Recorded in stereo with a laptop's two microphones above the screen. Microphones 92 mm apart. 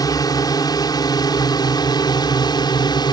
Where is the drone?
45° left (ahead or behind); by 3.1 s 50° left (ahead or behind).